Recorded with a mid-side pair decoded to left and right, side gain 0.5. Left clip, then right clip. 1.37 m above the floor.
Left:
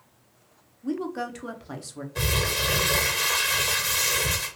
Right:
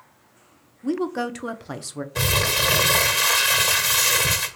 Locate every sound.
0.8 s a woman speaking: 35° right, 0.6 m
2.1 s crumpling: 45° right, 1.0 m